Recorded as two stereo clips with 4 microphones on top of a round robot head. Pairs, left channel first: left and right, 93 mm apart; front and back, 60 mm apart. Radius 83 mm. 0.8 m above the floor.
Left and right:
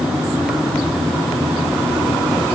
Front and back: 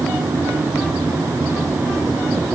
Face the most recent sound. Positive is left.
No sound to turn to.